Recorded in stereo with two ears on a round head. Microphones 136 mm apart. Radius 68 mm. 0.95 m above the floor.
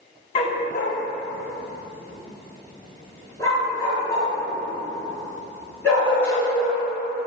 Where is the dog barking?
40° left (ahead or behind), 0.7 m; by 6.8 s 15° left (ahead or behind), 5 m.